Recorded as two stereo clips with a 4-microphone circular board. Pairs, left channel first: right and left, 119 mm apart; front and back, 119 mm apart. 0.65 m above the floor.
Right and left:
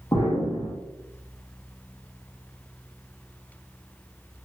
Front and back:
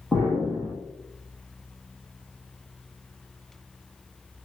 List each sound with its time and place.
0.1 s an explosion: 85° right, 1.0 m